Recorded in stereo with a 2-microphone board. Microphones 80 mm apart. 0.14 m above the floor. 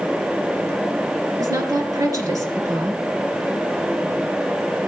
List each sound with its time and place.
1.4 s a woman speaking: 50° right (ahead or behind), 2 m